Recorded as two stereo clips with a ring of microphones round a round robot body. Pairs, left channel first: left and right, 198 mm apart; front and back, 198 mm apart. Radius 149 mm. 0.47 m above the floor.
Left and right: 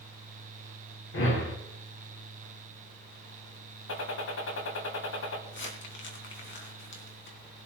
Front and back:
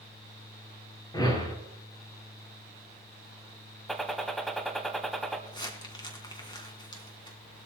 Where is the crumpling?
70° left, 3 m.